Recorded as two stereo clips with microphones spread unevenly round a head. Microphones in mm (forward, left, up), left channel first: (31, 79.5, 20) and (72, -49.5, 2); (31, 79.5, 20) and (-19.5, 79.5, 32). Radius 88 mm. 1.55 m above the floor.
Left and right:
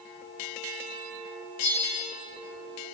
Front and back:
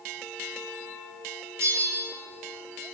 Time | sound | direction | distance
1.6 | a bell | 160° left | 7.5 m